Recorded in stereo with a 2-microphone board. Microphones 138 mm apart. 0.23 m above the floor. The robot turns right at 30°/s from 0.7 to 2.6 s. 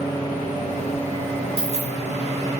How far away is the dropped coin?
About 0.6 m.